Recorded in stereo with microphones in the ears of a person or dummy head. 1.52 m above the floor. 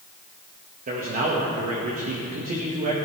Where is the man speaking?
45° right (ahead or behind), 1.4 m.